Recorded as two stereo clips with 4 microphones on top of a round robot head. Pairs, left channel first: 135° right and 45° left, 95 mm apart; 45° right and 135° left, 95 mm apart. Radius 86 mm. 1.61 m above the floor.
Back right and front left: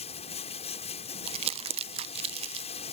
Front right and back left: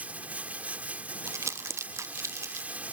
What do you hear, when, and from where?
0.0 s running water: 150° right
1.3 s crumpling: 70° left